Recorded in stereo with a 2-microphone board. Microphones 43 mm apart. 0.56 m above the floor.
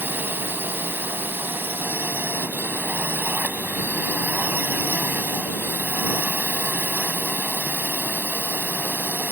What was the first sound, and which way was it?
A drone, 50° right (ahead or behind).